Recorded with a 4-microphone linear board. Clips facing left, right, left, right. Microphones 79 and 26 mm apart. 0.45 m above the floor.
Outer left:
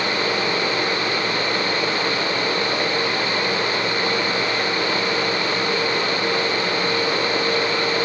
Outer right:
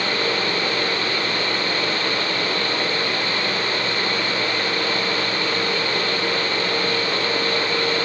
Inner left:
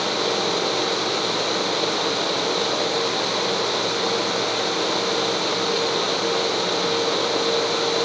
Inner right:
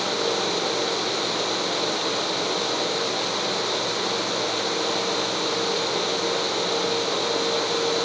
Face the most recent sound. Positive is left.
No sound to turn to.